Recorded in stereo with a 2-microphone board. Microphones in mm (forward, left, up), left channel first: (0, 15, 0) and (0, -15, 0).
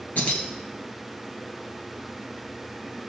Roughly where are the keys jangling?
Left.